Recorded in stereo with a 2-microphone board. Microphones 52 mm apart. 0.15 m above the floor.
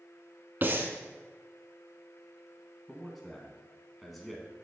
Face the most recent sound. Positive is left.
turn(degrees=0)  # may be behind; listen again after turning